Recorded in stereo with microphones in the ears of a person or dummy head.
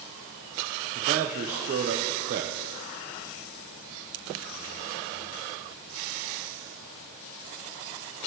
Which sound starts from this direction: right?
A man speaking, at 0.9 s.